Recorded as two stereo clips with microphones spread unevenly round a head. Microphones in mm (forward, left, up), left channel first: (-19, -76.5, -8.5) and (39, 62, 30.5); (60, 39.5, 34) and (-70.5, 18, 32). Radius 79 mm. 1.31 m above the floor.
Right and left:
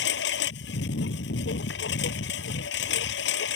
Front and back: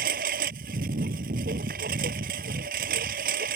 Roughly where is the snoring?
No snoring in this recording.